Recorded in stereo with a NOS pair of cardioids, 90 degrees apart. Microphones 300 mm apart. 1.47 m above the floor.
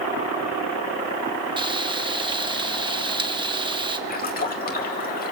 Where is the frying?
15° right, 1.3 m.